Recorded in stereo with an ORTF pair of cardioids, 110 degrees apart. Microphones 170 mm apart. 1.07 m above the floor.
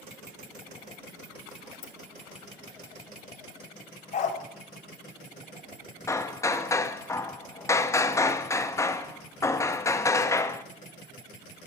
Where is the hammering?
15° left, 1.0 m.